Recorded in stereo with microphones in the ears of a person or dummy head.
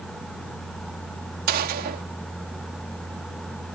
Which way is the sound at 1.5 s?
55° right (ahead or behind).